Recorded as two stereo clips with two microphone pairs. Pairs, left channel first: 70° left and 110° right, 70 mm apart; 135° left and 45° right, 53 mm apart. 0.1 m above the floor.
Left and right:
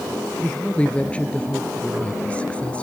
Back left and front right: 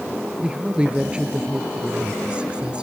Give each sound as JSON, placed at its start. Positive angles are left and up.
{"t": 0.4, "sound": "a woman speaking", "azimuth_deg": 10, "distance_m": 1.3}